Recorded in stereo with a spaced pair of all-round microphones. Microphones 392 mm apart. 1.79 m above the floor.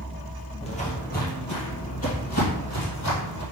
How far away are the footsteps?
About 1.9 m.